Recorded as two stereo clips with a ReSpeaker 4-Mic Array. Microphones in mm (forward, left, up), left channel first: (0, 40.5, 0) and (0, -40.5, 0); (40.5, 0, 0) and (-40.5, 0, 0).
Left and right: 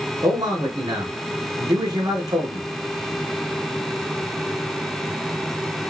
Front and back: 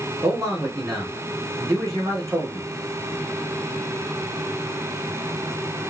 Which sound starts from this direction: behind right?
A man speaking, at 0.2 s.